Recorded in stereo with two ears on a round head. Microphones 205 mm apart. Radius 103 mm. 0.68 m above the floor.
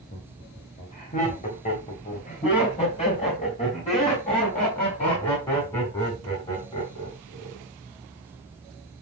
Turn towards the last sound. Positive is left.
turn(degrees=25)  # may be behind; listen again after turning